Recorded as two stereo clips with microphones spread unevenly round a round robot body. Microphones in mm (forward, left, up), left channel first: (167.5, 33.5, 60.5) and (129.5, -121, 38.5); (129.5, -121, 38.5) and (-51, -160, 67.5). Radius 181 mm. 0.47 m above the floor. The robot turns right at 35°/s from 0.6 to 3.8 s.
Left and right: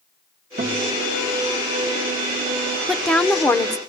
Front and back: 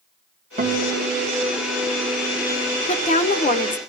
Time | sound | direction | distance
0.6 | a guitar | 130° right | 3 m
2.9 | a woman speaking | 25° right | 1.6 m